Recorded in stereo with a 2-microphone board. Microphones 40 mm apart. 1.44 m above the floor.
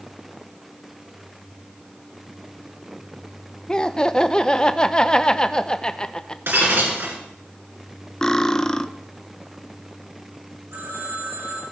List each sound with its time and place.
3.7 s laughter: 20° left (ahead or behind), 0.7 m
6.5 s breaking glass: 60° right (ahead or behind), 3 m
8.2 s cutlery clinking: 15° left (ahead or behind), 0.5 m
10.7 s a phone ringing: 85° right, 8.5 m